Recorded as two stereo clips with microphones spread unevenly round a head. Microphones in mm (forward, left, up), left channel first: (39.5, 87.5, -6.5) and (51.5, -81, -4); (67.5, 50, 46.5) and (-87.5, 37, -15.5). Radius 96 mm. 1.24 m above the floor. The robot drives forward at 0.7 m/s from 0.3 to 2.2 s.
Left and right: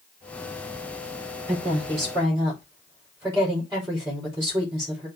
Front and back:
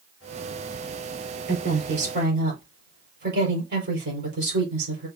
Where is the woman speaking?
165° right, 4.5 m.